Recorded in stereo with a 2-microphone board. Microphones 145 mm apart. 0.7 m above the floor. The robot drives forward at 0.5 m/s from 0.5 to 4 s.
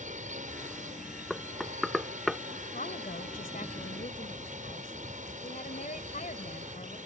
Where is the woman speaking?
80° left; by 7.0 s 70° left (ahead or behind).